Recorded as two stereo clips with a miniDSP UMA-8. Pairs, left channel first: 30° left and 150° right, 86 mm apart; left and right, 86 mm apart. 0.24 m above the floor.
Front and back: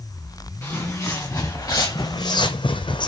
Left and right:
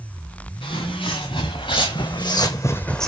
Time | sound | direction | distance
0.6 | footsteps | 100° left | 2 m